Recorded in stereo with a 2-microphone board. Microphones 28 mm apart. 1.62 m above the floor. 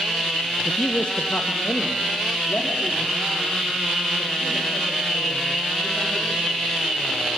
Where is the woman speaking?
30° left (ahead or behind), 0.7 m; by 6.6 s 70° left (ahead or behind), 8.5 m.